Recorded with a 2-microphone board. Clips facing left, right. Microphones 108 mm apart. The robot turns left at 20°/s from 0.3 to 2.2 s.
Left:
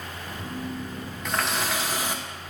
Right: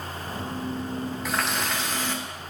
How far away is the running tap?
About 1.0 m.